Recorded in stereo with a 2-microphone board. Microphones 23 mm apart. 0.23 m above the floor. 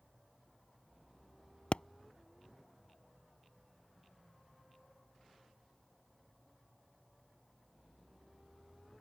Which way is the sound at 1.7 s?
55° left (ahead or behind).